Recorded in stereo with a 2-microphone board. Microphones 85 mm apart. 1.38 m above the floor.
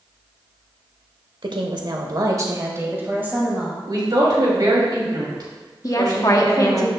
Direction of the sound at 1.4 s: 70° right (ahead or behind).